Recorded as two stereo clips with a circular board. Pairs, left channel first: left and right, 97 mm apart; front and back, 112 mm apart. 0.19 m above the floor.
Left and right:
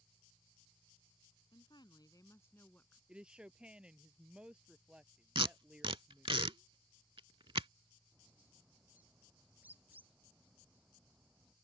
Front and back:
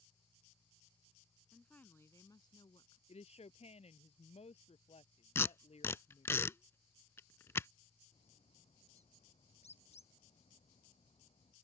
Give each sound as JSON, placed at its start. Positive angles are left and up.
{"t": 1.5, "sound": "a woman speaking", "azimuth_deg": 85}
{"t": 3.1, "sound": "a woman speaking", "azimuth_deg": -10}
{"t": 5.3, "sound": "tape being pulled", "azimuth_deg": -65}
{"t": 8.1, "sound": "a bird", "azimuth_deg": -15}